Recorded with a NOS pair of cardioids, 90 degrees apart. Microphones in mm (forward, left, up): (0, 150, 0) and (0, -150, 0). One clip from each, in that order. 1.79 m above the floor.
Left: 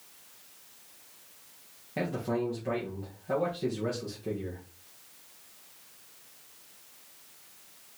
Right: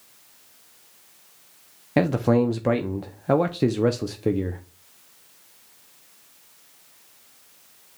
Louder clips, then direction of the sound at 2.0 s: Right 11 dB; 70° right.